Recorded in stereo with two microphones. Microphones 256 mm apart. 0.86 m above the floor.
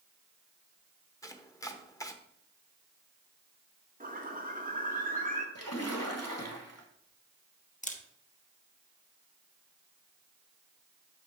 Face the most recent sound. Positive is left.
turn(degrees=30)  # may be behind; listen again after turning